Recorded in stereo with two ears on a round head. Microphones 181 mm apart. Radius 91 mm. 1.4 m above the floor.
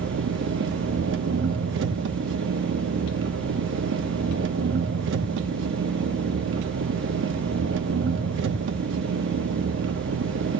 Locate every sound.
0.0 s an engine running: 65° right (ahead or behind), 1.0 m